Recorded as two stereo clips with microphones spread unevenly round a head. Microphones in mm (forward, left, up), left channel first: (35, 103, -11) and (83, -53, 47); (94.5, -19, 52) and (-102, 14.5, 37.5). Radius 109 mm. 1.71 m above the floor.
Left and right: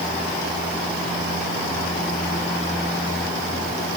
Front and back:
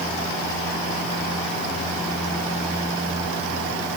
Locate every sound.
Only background noise.